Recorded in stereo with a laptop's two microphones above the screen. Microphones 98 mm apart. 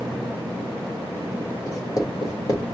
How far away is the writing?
About 1.5 m.